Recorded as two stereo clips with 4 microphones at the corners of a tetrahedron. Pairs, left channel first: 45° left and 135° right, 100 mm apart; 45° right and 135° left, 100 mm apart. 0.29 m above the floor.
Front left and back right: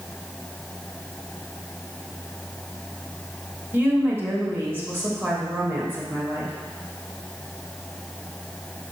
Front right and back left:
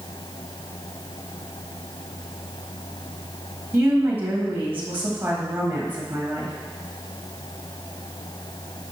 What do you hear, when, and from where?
3.7 s a woman speaking: straight behind, 1.7 m